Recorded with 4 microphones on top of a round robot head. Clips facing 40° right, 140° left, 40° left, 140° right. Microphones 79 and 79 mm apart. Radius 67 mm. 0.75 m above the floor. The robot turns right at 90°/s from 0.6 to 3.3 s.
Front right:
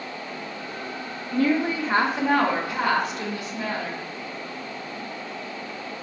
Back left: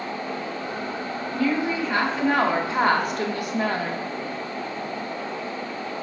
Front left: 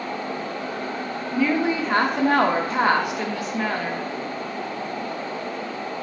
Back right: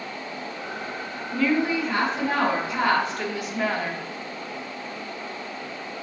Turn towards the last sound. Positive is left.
turn(degrees=135)